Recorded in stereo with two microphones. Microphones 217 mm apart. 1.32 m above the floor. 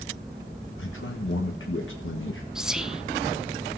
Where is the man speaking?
65° left (ahead or behind), 1.4 m.